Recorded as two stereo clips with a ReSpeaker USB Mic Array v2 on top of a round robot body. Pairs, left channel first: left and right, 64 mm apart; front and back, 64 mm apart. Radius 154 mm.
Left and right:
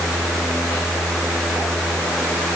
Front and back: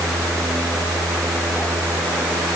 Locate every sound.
Only background noise.